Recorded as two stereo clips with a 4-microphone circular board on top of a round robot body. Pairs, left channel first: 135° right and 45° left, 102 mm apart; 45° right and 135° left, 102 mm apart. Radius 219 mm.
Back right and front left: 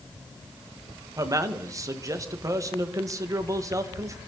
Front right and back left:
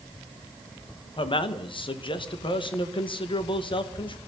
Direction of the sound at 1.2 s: 15° right.